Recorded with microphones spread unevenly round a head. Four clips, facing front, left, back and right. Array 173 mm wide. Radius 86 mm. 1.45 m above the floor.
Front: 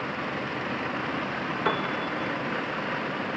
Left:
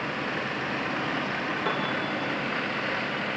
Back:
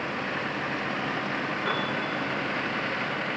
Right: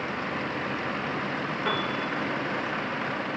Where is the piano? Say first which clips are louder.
Right 1 dB, front 4 dB; 10° left, 2.5 m.